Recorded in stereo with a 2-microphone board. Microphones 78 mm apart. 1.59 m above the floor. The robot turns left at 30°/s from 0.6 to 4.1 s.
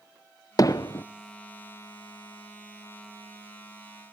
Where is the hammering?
50° left (ahead or behind), 0.6 m.